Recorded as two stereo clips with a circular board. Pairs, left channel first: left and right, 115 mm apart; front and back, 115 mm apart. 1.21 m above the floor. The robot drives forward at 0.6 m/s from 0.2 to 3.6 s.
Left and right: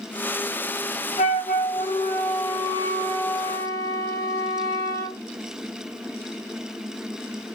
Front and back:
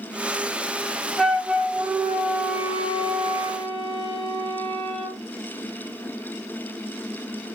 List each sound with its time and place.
1.2 s a flute: 90° left, 1.0 m; by 5.2 s 145° left, 1.8 m